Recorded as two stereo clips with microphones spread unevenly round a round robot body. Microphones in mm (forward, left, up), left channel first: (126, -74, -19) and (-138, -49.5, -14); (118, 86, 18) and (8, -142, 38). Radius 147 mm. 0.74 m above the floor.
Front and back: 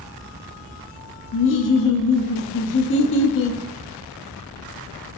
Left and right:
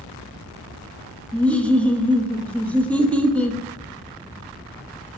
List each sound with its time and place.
1.3 s laughter: 15° right, 0.5 m